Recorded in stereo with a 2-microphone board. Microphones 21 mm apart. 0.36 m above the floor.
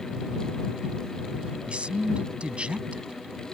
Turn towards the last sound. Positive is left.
turn(degrees=-65)  # may be behind; listen again after turning